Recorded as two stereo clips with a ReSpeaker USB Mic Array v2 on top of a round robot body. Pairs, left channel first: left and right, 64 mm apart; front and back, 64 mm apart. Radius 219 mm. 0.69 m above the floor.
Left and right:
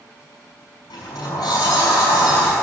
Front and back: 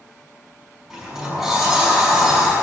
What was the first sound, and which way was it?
A sliding door, 95° left.